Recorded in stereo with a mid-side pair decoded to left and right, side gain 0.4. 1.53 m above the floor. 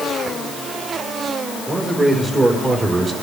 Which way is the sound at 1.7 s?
45° right.